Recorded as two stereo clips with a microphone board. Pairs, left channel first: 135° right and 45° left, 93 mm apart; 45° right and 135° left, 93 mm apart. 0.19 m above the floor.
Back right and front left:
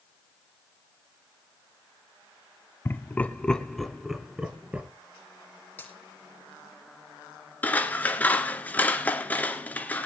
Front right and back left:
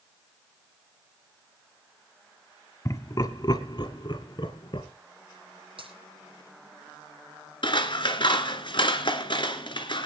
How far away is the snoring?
I don't hear snoring.